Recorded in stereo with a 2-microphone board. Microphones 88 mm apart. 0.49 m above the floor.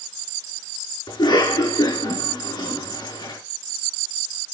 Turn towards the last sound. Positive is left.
turn(degrees=65)  # may be behind; listen again after turning